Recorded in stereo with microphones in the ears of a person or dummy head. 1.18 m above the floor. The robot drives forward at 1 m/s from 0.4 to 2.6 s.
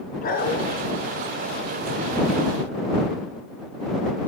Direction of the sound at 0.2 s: 55° left (ahead or behind).